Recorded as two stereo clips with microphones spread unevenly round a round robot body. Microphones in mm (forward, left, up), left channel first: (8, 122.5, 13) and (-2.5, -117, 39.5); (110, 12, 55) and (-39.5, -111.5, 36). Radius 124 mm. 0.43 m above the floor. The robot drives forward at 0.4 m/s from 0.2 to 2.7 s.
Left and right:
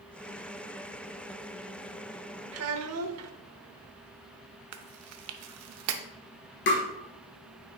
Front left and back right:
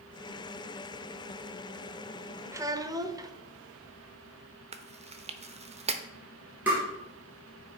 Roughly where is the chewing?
Right.